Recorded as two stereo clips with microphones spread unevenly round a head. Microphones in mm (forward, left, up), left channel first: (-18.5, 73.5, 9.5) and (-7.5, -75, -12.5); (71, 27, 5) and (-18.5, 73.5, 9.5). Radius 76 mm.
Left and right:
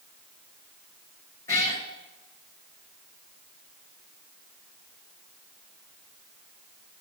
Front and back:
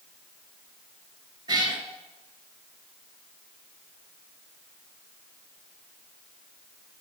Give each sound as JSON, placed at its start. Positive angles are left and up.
{"t": 1.5, "sound": "a cat meowing", "azimuth_deg": 150, "distance_m": 2.0}